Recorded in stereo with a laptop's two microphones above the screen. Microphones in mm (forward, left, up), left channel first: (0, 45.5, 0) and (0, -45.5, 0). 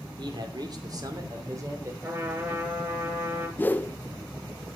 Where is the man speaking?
55° right (ahead or behind), 2 m; by 1.9 s 30° right (ahead or behind), 3 m.